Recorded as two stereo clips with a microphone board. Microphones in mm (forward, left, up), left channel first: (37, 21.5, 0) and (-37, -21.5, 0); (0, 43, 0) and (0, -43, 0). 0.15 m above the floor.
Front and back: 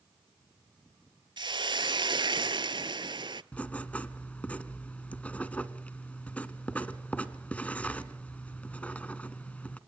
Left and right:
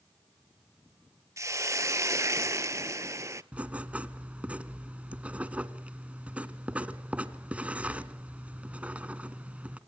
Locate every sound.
1.4 s a hiss: 140° right, 0.7 m
3.5 s writing: 30° right, 1.2 m